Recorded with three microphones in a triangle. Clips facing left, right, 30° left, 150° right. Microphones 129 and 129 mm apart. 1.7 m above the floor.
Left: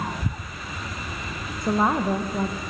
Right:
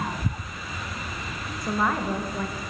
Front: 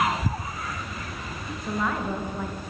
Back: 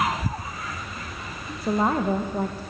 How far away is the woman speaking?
About 1.9 m.